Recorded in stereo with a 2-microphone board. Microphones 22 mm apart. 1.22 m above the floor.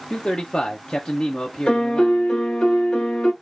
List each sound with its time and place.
0.1 s a man speaking: 60° left (ahead or behind), 0.6 m
1.7 s a piano: 50° left (ahead or behind), 0.9 m